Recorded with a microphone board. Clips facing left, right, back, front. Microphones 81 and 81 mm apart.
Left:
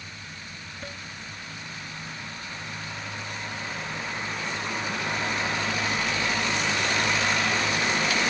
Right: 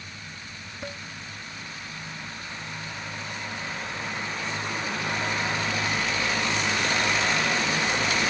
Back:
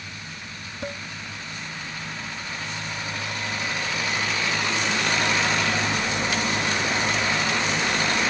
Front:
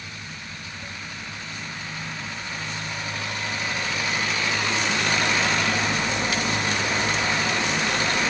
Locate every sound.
0.8 s dishes clattering: 165° right